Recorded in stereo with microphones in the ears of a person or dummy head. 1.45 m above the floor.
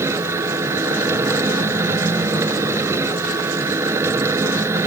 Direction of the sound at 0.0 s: 10° right (ahead or behind).